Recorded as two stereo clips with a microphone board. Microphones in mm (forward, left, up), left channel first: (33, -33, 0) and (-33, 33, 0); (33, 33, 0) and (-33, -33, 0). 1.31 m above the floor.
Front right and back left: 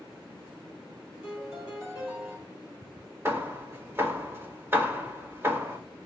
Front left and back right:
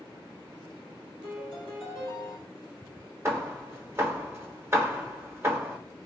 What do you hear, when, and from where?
1.2 s a piano: 145° right, 5 m
3.2 s hammering: 175° right, 1.1 m